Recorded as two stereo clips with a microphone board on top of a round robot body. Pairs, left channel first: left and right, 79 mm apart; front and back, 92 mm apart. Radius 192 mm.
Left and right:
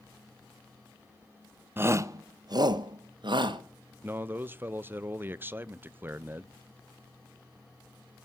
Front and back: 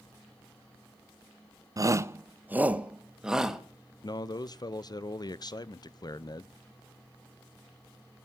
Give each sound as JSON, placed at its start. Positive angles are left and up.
{"t": 1.8, "sound": "a shout", "azimuth_deg": -145, "distance_m": 0.9}
{"t": 4.0, "sound": "a man speaking", "azimuth_deg": -30, "distance_m": 0.8}